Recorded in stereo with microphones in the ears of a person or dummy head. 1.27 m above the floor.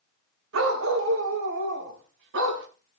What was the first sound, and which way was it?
A dog barking, 70° right (ahead or behind).